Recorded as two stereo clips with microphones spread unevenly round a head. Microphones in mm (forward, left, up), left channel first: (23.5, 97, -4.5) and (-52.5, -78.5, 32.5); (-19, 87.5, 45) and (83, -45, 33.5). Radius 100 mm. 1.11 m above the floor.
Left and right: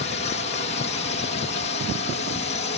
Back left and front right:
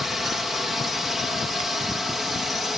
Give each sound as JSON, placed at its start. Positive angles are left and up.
{"t": 0.0, "sound": "a drone", "azimuth_deg": 35}